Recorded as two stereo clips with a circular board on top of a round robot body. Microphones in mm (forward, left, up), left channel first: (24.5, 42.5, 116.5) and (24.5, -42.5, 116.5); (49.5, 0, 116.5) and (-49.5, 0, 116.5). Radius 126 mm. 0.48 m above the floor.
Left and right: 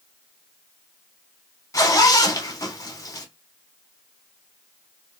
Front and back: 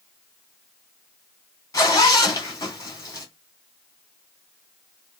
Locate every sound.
1.7 s a zipper: 50° left, 2.5 m